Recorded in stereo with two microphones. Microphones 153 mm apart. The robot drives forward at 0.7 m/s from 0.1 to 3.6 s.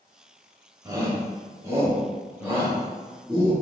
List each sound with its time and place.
0.8 s a shout: 25° right (ahead or behind), 1.2 m; by 3.5 s 10° right (ahead or behind), 2.5 m